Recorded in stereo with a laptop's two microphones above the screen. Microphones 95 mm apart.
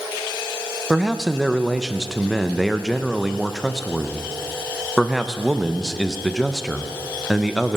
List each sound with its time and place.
0.9 s a man speaking: centre (ahead or behind), 0.6 m